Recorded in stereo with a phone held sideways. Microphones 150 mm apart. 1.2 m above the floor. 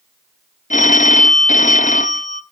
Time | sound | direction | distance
0.7 | a phone ringing | 55° left (ahead or behind) | 0.6 m